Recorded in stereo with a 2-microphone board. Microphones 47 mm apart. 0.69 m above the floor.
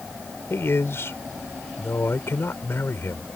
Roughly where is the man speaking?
Left.